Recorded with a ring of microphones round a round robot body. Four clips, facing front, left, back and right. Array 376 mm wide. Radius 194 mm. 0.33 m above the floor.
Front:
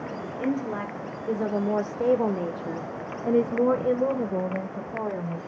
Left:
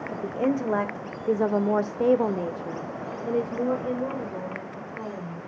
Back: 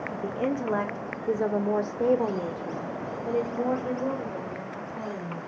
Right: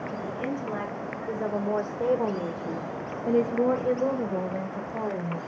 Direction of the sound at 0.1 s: 115° left.